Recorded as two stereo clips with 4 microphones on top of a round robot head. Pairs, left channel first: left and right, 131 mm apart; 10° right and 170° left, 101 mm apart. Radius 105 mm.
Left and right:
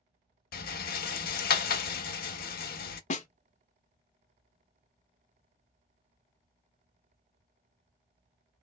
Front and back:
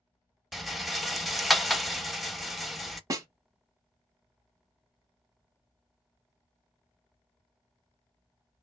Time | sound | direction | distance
0.5 | a rattle | 85° left | 0.5 m
3.1 | a snare drum | 115° left | 0.6 m